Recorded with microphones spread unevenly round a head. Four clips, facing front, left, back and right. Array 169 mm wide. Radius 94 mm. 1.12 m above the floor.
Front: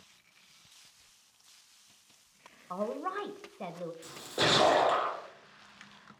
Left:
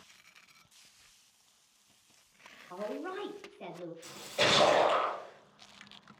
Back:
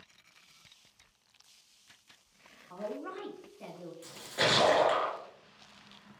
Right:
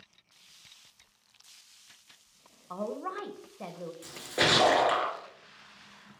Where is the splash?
65° right, 2.5 m.